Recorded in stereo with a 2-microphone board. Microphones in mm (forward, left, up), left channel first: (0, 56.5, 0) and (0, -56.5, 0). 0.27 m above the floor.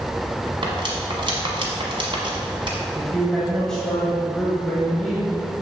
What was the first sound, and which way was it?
Cutlery clinking, 50° right (ahead or behind).